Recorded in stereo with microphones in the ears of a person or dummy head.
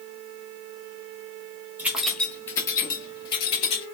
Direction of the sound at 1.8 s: 5° right (ahead or behind).